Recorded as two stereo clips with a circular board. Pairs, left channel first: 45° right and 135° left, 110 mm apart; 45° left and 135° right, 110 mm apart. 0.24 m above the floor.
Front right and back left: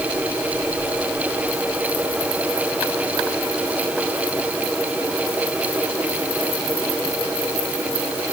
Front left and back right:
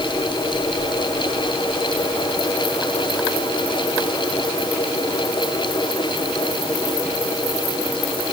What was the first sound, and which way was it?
Only background noise.